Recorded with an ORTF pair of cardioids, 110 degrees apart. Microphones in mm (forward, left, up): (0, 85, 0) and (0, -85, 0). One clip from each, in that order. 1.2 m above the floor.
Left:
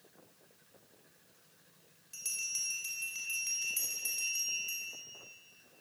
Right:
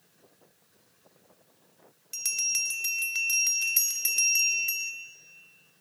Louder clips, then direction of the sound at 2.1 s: Right 9 dB; 65° right.